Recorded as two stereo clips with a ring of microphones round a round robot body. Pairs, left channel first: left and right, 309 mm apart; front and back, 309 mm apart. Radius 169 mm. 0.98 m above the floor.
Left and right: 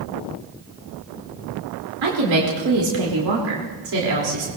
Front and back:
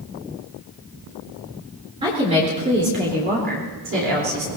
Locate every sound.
2.0 s a woman speaking: 105° right, 3.5 m; by 4.5 s 130° right, 3.5 m